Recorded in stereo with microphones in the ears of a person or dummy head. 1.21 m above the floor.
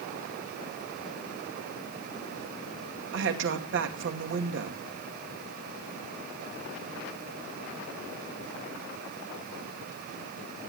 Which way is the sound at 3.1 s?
60° right (ahead or behind).